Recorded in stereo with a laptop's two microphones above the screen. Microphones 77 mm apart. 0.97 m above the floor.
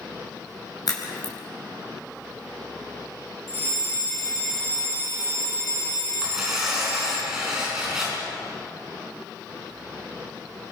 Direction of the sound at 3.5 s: 30° left (ahead or behind).